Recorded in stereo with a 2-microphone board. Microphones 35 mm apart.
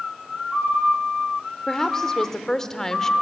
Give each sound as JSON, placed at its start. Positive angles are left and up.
{"t": 1.7, "sound": "a woman speaking", "side_deg": 15, "distance_m": 1.3}